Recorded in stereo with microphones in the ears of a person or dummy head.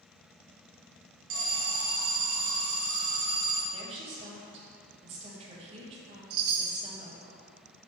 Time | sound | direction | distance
1.3 | an alarm | 70° right (ahead or behind) | 1.7 m
3.7 | a woman speaking | 35° right (ahead or behind) | 1.3 m
6.3 | a chime | 55° right (ahead or behind) | 0.9 m